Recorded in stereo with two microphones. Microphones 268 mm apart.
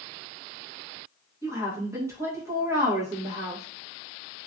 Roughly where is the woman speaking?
Centre.